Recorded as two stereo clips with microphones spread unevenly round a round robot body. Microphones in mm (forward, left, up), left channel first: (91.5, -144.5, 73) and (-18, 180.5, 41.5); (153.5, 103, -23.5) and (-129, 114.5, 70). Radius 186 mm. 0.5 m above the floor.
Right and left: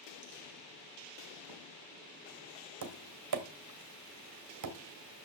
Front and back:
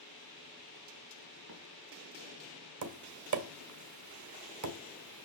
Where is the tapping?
145° left, 1.8 m.